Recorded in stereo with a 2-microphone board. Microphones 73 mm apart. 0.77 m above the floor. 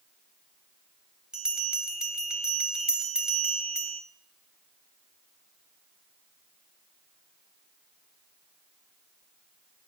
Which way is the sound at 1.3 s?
10° right (ahead or behind).